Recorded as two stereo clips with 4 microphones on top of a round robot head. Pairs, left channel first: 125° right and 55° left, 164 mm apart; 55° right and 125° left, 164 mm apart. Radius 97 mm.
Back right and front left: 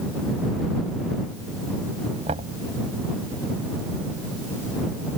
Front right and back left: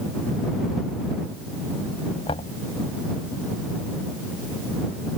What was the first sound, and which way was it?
Knocking, straight ahead.